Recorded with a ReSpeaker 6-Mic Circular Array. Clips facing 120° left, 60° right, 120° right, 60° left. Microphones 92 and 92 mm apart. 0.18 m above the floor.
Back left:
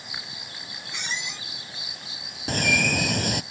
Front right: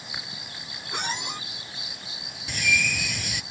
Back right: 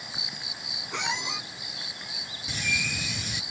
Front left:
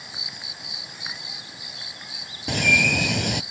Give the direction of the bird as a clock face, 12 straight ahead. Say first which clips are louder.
Back left 4 dB, front left 11 dB; 9 o'clock.